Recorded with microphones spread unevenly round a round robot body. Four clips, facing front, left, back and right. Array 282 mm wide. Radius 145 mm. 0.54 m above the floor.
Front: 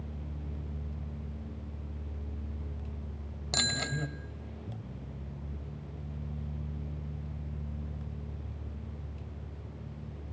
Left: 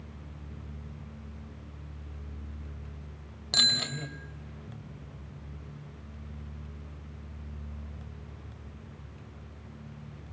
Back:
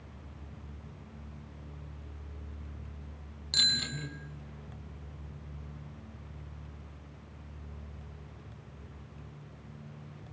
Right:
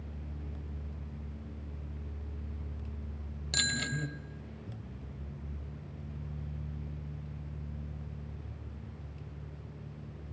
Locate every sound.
3.5 s a bicycle bell: 25° left, 2 m